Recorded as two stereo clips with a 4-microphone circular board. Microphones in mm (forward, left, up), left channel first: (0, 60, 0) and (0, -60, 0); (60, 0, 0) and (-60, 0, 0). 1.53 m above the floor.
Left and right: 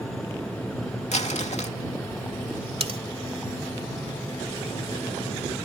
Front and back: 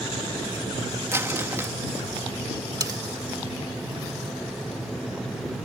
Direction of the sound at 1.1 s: 110° left.